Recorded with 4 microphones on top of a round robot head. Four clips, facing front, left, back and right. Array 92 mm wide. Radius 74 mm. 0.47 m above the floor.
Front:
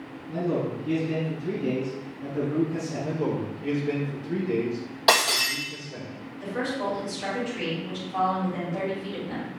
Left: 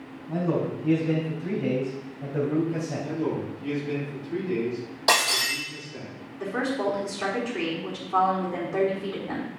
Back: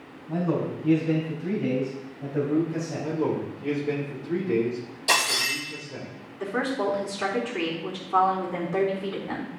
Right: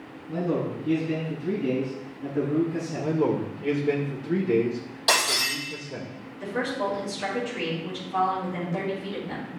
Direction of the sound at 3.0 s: 100° right.